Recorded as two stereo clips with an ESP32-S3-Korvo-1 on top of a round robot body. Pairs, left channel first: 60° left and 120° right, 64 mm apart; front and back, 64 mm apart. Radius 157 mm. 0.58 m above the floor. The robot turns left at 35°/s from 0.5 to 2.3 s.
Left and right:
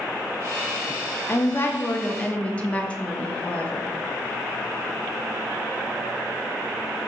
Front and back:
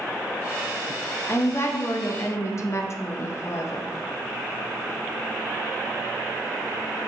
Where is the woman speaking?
30° left, 0.7 m; by 3.9 s 5° right, 0.7 m.